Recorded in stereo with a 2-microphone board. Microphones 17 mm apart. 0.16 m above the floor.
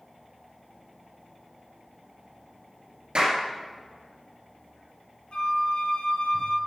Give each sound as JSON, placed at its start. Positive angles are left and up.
{"t": 3.1, "sound": "a clap", "side_deg": -55, "distance_m": 2.5}
{"t": 5.3, "sound": "a flute", "side_deg": 75, "distance_m": 0.9}